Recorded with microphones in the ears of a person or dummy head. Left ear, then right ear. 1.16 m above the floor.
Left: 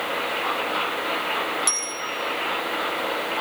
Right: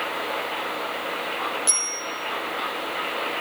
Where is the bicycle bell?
5° left (ahead or behind), 9 m.